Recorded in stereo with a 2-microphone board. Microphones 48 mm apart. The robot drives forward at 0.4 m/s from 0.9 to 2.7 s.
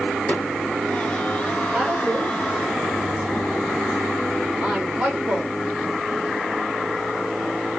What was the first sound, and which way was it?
A snare drum, 25° left (ahead or behind).